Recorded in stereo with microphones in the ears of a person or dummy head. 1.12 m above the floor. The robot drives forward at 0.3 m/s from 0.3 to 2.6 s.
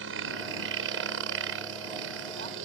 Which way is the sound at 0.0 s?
70° right (ahead or behind).